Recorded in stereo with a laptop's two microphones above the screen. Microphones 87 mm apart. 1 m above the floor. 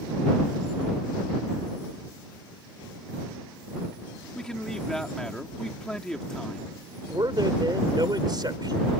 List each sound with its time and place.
4.3 s a man speaking: 5° left (ahead or behind)
7.1 s a man speaking: 55° right (ahead or behind)